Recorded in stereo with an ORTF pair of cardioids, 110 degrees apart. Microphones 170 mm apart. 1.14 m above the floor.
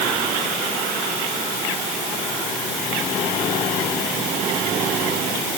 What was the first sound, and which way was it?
Only background noise.